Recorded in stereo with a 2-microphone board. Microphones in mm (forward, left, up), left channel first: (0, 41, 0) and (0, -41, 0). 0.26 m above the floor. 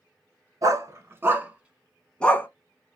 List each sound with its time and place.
0.6 s a dog barking: 40° right (ahead or behind), 1.3 m; by 2.5 s 25° left (ahead or behind), 0.9 m